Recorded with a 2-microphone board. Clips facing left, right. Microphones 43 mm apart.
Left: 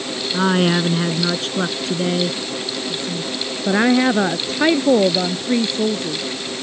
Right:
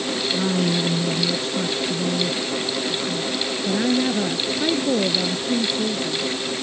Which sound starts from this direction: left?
A woman speaking, at 0.3 s.